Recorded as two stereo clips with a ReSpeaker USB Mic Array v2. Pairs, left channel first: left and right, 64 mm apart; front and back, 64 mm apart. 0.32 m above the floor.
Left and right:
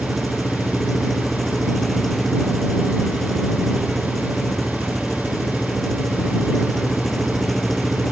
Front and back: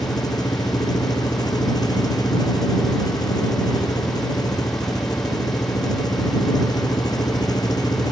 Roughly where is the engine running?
Ahead.